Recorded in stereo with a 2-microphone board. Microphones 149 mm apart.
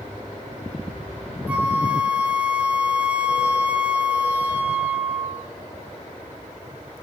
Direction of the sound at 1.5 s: 10° right (ahead or behind).